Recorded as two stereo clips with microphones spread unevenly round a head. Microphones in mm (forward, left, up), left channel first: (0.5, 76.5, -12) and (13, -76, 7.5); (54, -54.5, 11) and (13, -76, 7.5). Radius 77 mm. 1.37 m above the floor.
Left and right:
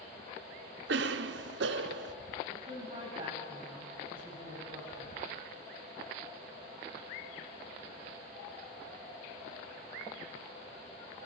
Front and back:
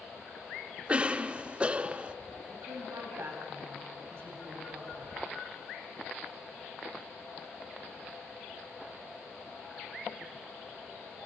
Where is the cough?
90° right, 0.7 m.